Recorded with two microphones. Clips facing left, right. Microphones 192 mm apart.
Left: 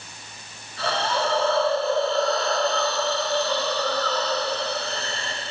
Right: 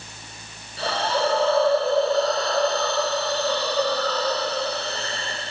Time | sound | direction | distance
0.8 | a hiss | 35° right (ahead or behind) | 8 m